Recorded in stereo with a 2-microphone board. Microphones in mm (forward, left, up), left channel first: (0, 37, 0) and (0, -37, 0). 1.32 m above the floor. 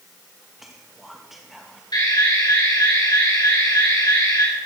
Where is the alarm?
75° left (ahead or behind), 5.5 m.